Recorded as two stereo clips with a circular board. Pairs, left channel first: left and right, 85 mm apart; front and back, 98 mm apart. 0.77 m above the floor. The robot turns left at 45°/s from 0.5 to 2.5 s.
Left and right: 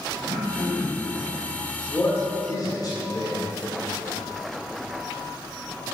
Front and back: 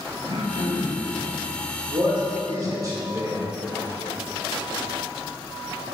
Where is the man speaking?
155° left, 2.0 m; by 3.4 s 130° left, 2.0 m.